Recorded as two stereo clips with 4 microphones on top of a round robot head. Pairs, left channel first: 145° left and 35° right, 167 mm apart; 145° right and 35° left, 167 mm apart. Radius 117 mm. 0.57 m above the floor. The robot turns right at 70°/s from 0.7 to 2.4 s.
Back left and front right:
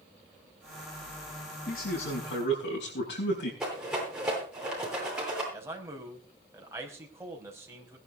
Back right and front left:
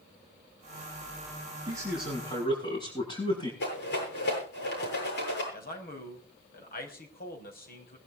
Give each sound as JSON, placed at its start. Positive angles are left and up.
{"t": 1.7, "sound": "a man speaking", "azimuth_deg": 105, "distance_m": 7.0}
{"t": 3.6, "sound": "a rattle", "azimuth_deg": -125, "distance_m": 10.0}
{"t": 5.5, "sound": "a man speaking", "azimuth_deg": -110, "distance_m": 5.0}